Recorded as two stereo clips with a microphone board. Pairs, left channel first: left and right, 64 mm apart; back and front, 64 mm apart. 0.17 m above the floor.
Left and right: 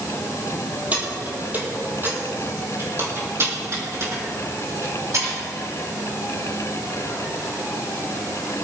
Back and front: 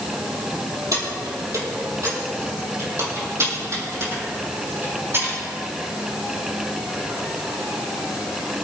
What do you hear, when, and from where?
0.9 s keys jangling: 25° right, 4 m; by 5.4 s 50° right, 6.5 m